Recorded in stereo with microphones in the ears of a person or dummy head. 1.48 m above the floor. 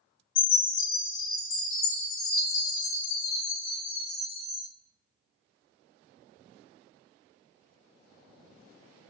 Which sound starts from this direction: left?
A chime, at 0.3 s.